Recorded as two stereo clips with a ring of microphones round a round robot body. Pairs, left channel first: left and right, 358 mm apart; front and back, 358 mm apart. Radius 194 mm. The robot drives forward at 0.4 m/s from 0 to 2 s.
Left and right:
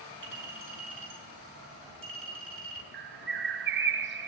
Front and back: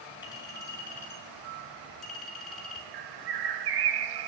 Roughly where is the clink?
Right.